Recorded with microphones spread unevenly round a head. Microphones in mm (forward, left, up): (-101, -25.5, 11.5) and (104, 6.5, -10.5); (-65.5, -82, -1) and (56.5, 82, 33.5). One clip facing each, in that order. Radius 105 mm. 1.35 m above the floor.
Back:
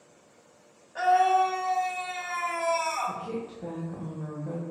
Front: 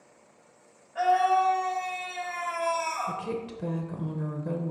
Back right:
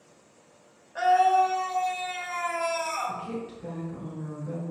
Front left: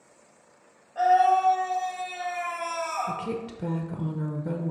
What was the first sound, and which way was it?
A scream, 140° right.